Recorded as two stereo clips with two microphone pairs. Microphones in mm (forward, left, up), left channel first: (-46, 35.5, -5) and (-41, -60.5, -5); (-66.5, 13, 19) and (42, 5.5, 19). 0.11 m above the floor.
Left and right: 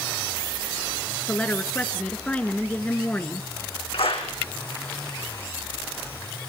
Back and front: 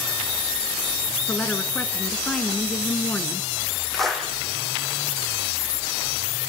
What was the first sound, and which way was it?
A woman speaking, 135° left.